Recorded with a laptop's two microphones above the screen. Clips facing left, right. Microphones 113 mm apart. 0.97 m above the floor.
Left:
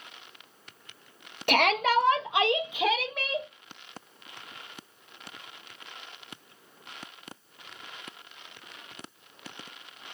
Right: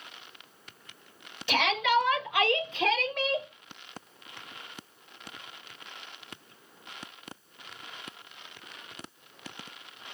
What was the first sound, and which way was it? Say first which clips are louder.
A shout: left 2 dB; 55° left (ahead or behind).